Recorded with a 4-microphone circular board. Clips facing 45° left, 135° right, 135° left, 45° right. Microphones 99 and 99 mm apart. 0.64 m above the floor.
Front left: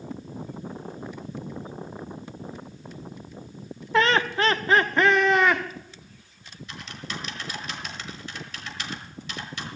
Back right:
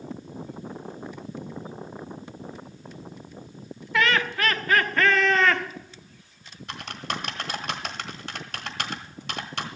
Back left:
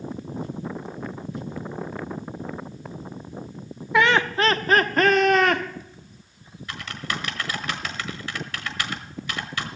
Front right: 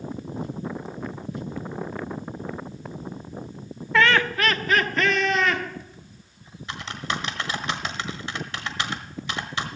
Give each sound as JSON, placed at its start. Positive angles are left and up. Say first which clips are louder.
{"t": 3.9, "sound": "laughter", "louder": "front left 3 dB, back left 1 dB", "azimuth_deg": 70, "distance_m": 0.8}
{"t": 6.7, "sound": "typing on a keyboard", "louder": "back right 5 dB, front right 2 dB", "azimuth_deg": -110, "distance_m": 1.4}